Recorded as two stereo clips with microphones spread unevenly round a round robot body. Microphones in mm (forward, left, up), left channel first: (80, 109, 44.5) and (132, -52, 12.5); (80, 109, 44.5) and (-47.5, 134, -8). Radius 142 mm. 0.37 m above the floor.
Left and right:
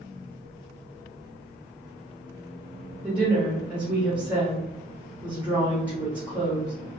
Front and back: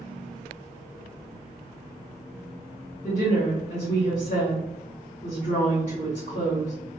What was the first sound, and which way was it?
A woman speaking, 30° right.